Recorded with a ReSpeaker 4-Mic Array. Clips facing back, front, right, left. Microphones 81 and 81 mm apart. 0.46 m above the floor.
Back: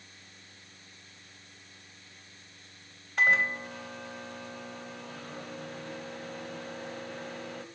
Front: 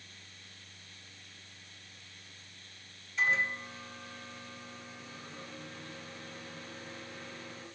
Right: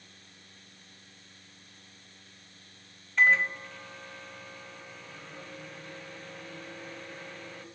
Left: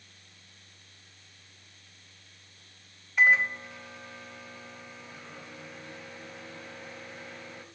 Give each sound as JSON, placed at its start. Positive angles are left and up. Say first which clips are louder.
{"t": 3.2, "sound": "a microwave", "louder": "back 5 dB, left 1 dB", "azimuth_deg": 170, "distance_m": 1.7}